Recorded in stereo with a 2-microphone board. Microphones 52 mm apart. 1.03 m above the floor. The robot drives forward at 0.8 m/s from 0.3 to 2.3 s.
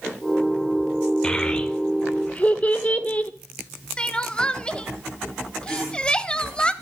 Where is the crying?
20° left (ahead or behind), 0.9 m.